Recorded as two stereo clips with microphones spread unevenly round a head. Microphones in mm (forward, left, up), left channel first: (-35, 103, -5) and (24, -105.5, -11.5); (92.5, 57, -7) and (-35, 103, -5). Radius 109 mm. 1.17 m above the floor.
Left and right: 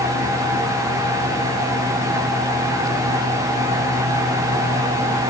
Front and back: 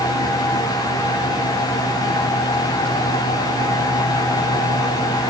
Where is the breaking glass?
No breaking glass in this recording.